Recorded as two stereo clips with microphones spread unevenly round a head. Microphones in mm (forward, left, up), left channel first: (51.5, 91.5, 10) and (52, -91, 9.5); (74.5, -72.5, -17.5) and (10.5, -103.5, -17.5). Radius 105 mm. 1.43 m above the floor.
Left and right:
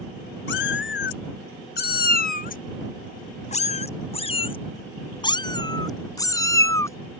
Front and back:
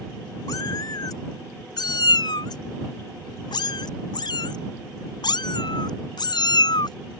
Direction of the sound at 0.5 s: 80° left.